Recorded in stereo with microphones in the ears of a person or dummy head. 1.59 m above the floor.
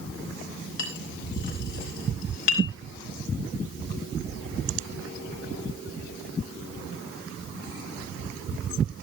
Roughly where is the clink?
Left.